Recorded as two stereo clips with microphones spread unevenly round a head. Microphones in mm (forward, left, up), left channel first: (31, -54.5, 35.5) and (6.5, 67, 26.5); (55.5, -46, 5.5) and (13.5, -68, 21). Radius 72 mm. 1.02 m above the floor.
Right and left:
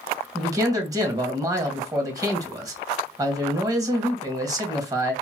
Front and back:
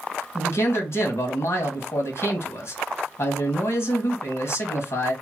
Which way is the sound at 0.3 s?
40° left.